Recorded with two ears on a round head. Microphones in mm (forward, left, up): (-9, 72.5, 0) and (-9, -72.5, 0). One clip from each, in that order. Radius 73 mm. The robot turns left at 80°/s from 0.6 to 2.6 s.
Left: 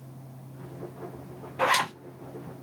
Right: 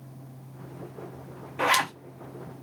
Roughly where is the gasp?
No gasp in this recording.